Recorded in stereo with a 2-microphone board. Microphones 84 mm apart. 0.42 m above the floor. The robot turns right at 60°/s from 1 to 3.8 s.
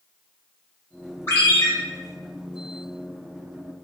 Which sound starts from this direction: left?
A ringtone, at 1.3 s.